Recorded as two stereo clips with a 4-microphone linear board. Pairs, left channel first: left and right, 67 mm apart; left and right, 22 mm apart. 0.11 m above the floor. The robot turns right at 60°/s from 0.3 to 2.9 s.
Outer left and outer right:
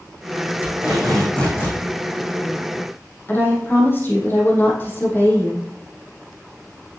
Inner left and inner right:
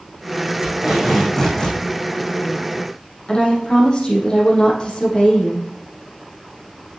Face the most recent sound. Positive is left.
turn(degrees=30)  # may be behind; listen again after turning